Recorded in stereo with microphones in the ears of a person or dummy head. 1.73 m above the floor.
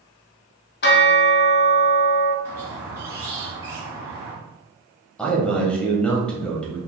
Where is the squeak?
15° right (ahead or behind), 1.2 m.